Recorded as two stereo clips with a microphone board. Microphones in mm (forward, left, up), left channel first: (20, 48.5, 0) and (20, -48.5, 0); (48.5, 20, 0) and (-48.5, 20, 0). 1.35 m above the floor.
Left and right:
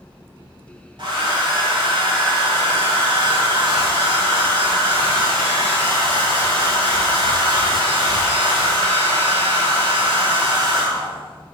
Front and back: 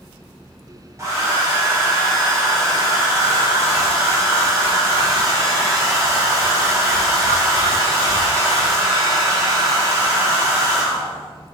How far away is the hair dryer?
About 1.0 m.